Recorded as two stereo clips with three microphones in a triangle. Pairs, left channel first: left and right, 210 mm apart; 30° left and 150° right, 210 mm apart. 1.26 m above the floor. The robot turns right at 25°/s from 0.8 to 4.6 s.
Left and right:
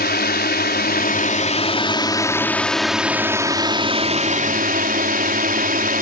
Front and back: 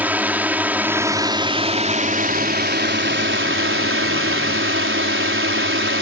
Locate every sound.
0.0 s a drone: 130° left; by 6.0 s 135° right